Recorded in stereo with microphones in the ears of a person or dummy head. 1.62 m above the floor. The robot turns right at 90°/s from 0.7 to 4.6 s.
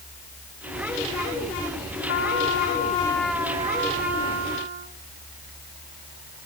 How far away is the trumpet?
About 2.5 m.